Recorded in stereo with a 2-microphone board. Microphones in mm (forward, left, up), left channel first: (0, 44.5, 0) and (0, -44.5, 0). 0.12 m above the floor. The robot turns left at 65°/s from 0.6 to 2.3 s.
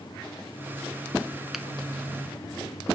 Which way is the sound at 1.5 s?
5° right (ahead or behind).